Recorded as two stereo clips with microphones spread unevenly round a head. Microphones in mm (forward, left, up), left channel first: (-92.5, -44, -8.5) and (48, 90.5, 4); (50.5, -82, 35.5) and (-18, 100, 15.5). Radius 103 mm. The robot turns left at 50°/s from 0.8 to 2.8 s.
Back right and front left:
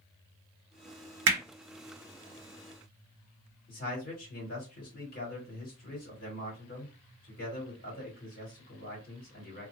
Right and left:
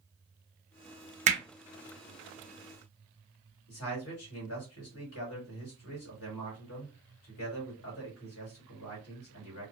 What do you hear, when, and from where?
1.3 s hammering: 60° left, 1.0 m; by 1.4 s 55° left, 1.0 m
3.7 s a man speaking: 85° right, 1.7 m